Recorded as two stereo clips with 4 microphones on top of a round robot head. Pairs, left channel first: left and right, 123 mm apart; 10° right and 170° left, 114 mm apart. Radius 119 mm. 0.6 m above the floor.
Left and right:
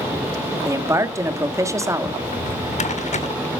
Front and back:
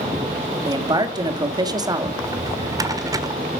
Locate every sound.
0.7 s a man speaking: 150° right, 1.8 m
2.2 s a drawer: 110° left, 1.5 m